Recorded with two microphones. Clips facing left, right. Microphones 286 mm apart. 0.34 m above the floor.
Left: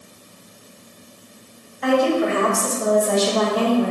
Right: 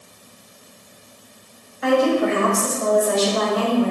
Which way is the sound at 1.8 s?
5° right (ahead or behind).